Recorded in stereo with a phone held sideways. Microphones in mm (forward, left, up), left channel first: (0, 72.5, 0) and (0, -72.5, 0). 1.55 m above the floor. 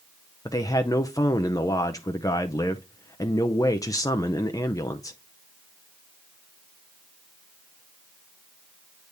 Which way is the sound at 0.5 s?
25° left (ahead or behind).